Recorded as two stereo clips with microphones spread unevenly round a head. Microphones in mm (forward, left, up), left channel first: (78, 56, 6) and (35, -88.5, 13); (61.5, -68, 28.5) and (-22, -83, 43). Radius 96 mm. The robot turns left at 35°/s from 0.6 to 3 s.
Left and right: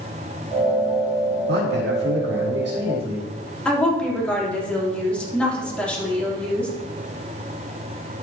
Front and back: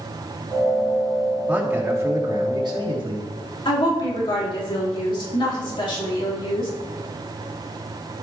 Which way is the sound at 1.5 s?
100° right.